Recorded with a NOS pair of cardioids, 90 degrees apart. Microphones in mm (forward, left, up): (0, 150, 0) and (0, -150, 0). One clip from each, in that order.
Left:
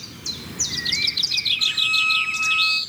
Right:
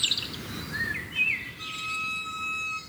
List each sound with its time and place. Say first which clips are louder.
1.6 s a violin: left 13 dB; 60° left, 3 m